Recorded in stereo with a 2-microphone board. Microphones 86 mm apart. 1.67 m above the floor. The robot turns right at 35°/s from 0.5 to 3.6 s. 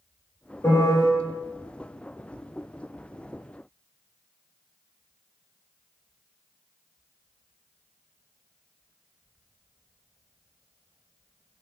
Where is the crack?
I don't hear a crack.